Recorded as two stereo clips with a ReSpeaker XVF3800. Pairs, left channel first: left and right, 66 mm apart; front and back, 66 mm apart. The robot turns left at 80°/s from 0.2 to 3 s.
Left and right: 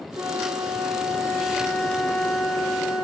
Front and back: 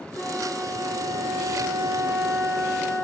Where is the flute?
75° right, 4.5 m; by 3.0 s 60° left, 4.5 m.